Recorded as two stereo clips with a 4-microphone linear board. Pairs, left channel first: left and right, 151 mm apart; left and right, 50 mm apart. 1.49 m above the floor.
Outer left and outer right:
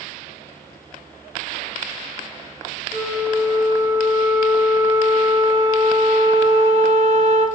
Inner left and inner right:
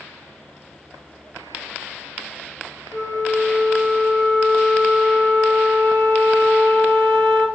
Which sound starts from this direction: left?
A flute, at 2.9 s.